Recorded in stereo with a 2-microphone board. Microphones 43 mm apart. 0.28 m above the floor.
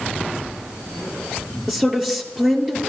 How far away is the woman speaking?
About 5 m.